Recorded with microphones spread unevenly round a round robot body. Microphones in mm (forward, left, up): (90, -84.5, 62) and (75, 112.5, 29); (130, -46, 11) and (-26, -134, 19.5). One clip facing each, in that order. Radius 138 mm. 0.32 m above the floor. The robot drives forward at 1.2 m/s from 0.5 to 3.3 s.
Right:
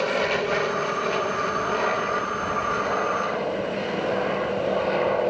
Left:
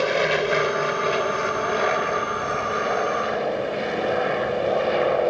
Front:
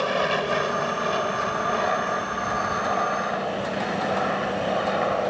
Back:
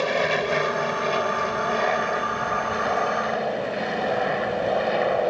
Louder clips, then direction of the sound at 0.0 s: Left 2 dB, back 1 dB; 145° left.